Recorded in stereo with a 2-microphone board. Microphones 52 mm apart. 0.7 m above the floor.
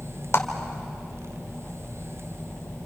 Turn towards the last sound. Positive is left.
turn(degrees=60)  # may be behind; listen again after turning